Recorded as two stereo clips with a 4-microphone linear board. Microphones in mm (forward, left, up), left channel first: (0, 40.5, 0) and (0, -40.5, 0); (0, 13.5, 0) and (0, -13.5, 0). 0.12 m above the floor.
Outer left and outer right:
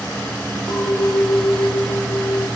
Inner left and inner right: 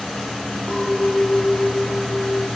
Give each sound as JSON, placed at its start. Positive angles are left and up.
{"t": 0.7, "sound": "a clink", "side_deg": 60, "distance_m": 2.5}